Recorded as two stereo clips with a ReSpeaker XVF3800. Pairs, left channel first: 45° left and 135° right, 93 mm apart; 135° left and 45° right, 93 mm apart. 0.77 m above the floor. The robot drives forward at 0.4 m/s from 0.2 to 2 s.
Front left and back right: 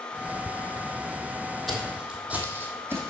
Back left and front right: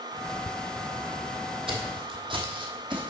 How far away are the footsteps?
About 1.7 m.